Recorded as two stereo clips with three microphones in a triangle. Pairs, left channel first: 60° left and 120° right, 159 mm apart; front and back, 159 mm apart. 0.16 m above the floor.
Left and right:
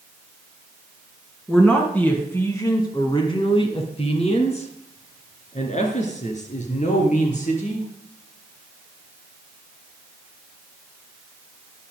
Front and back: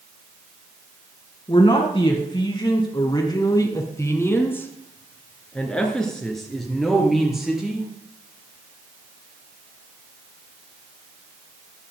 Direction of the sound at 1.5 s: 25° right.